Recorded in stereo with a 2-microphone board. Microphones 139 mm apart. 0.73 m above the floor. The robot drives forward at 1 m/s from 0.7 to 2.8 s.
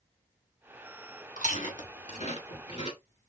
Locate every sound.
1.4 s chewing: 70° left (ahead or behind), 2.5 m; by 3.0 s 45° left (ahead or behind), 3 m